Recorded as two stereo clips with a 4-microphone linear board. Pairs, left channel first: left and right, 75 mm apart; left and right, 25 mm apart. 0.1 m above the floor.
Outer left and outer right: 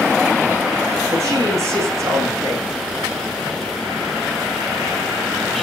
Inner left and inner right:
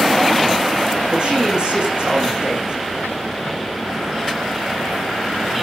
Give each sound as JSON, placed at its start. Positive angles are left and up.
{"t": 1.1, "sound": "a man speaking", "side_deg": -40, "distance_m": 6.5}